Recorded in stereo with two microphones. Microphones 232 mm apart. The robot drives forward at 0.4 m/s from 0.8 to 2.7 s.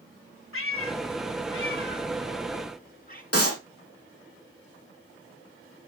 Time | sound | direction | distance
0.5 | a cat meowing | 65° left (ahead or behind) | 0.7 m
3.3 | a clap | 80° left | 5.5 m